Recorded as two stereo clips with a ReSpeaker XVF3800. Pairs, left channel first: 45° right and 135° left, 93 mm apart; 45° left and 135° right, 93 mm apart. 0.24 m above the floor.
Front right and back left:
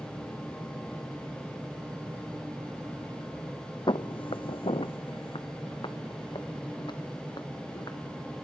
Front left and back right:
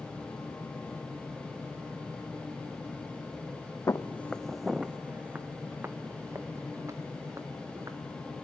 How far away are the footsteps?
About 0.7 m.